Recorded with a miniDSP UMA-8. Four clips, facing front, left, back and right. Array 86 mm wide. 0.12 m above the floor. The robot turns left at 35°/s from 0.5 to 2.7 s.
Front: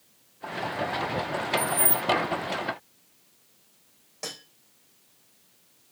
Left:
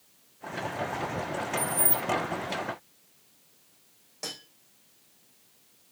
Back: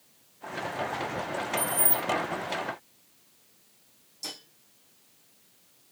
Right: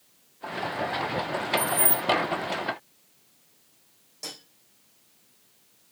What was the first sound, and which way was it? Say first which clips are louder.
Keys jangling: right 3 dB, front 3 dB; 120° right.